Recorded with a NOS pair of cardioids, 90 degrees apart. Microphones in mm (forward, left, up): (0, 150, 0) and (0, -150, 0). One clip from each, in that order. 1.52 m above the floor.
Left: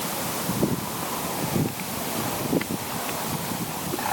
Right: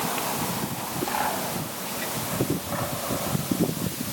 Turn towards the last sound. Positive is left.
No sound to turn to.